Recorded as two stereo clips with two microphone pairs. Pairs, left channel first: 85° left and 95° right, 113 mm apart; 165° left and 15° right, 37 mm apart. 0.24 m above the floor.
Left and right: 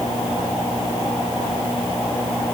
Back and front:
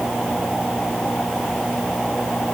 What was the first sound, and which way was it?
Only background noise.